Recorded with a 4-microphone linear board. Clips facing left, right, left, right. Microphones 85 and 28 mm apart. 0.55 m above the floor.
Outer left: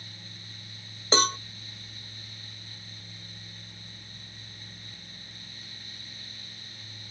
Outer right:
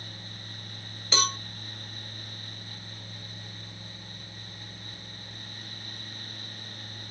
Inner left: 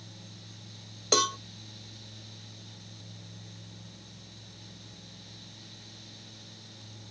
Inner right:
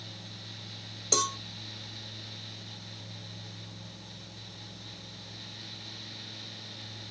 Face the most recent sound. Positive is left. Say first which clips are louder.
# outer left 4 dB, inner left 4 dB
turn(degrees=35)  # may be behind; listen again after turning